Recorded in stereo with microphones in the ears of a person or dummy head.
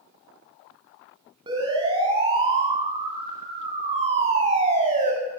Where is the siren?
25° right (ahead or behind), 10 m; by 5.1 s 40° right (ahead or behind), 6.5 m.